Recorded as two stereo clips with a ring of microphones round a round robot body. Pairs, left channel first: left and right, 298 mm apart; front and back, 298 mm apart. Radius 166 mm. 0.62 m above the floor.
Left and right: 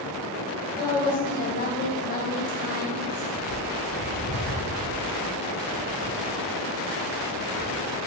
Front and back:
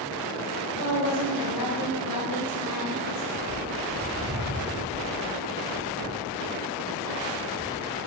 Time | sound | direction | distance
0.8 | a woman speaking | 30° left | 3.5 m
3.3 | a bird | 110° left | 4 m